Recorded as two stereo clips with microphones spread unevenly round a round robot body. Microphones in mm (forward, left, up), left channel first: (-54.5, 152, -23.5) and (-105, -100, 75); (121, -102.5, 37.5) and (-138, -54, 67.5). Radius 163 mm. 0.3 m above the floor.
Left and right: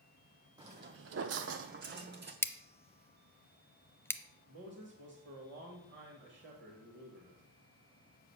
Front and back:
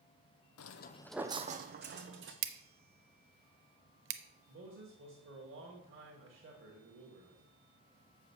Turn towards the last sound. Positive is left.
turn(degrees=-155)